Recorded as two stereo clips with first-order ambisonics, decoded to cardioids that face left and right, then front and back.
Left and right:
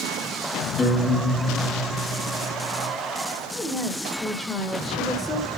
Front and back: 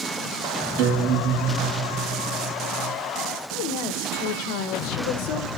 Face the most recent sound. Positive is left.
turn(degrees=5)